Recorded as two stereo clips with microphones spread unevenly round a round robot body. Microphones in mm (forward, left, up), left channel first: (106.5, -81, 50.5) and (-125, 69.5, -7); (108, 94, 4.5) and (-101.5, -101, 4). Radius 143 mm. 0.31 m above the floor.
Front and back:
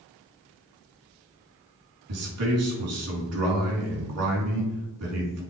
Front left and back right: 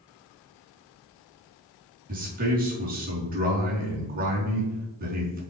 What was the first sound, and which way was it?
A man speaking, 165° left.